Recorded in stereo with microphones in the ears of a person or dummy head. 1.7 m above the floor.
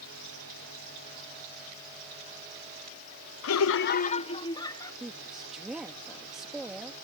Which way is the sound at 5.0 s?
5° right (ahead or behind).